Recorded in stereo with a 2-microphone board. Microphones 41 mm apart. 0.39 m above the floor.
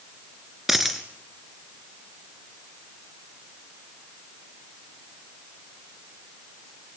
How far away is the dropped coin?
About 2 m.